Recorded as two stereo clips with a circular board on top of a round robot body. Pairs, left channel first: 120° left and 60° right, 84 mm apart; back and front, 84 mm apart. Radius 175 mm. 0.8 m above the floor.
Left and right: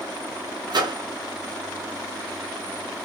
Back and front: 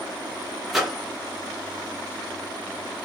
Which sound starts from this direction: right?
A microwave, at 0.7 s.